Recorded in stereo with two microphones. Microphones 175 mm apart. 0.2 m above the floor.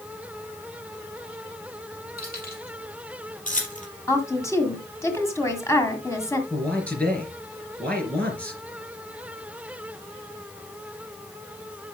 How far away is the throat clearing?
No throat clearing in this recording.